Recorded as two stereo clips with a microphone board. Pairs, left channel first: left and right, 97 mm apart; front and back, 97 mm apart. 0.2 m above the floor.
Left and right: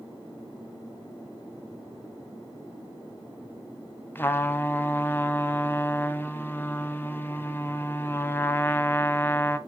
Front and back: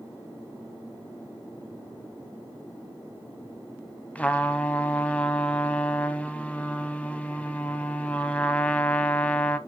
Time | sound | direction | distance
4.2 | a trumpet | 55° left | 0.7 m